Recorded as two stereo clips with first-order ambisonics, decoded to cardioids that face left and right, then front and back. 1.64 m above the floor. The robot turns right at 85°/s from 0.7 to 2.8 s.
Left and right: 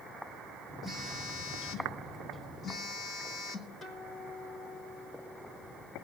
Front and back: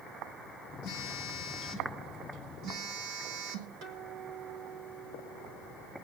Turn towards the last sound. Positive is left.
turn(degrees=180)